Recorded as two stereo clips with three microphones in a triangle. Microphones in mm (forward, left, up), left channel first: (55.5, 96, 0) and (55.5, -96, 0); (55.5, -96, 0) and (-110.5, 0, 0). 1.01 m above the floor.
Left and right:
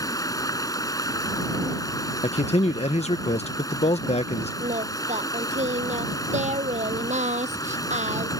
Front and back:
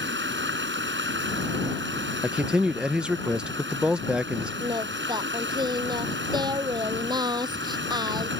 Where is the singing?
140° right.